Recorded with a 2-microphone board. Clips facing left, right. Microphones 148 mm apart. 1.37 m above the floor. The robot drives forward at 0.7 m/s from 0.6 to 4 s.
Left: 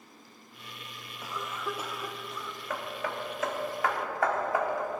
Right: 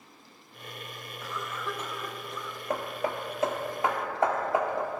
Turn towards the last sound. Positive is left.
turn(degrees=-25)  # may be behind; listen again after turning